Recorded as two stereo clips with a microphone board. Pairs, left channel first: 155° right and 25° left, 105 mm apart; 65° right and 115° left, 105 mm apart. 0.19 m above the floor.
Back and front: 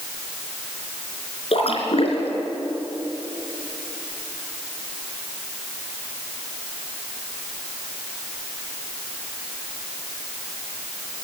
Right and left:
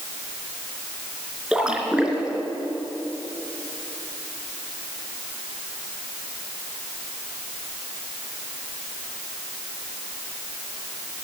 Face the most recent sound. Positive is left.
turn(degrees=-165)